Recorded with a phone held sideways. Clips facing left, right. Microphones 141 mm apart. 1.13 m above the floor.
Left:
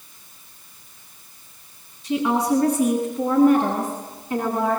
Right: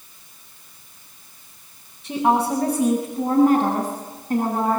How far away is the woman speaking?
About 7 m.